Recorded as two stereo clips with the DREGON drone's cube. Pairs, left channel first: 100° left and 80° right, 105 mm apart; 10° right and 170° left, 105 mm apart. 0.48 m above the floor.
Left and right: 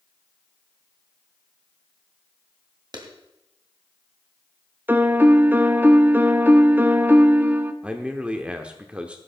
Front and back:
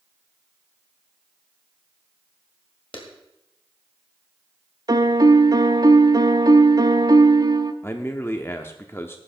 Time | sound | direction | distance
2.9 | a clap | 35° right | 2 m
4.9 | a piano | 145° right | 0.6 m
7.8 | a man speaking | 20° right | 0.8 m